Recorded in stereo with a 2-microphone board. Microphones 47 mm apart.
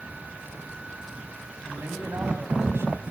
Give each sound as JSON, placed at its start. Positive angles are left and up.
{"t": 1.6, "sound": "a man speaking", "side_deg": -60, "distance_m": 5.0}